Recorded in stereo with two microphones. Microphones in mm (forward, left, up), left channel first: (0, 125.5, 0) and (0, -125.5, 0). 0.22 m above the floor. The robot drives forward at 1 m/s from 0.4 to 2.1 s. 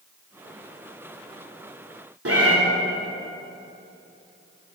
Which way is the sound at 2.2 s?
65° right (ahead or behind).